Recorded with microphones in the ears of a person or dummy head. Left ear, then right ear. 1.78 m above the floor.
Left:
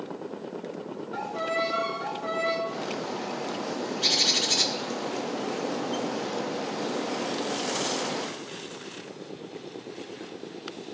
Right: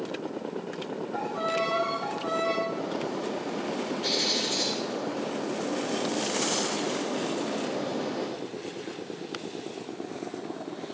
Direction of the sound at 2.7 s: 75° left (ahead or behind).